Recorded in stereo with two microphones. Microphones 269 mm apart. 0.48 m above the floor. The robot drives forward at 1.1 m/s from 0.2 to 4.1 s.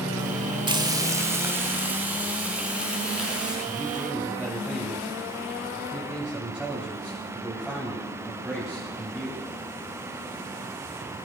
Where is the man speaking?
5° right (ahead or behind), 3.5 m.